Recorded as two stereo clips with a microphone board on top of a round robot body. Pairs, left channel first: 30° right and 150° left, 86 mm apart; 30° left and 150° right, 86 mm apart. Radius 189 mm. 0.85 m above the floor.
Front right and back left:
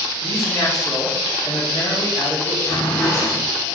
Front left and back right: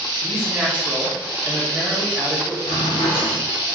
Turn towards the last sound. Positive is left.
turn(degrees=25)